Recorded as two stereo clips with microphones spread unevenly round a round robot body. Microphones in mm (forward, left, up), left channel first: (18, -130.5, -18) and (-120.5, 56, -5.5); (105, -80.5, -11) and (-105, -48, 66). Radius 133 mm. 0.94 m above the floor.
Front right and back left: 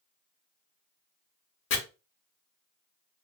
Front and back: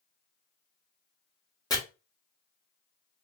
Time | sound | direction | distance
1.7 | chopping | 65° right | 1.4 m